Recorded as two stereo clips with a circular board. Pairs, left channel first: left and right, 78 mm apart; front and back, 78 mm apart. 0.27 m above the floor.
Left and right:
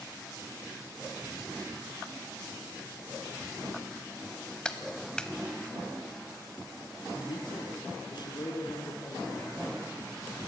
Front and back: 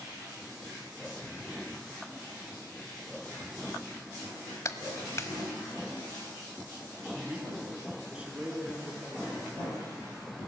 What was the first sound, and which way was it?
A clap, 15° left.